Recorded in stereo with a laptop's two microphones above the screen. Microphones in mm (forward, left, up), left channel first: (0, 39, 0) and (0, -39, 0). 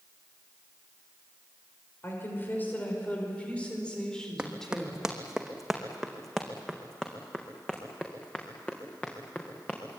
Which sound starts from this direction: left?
A woman speaking, at 2.0 s.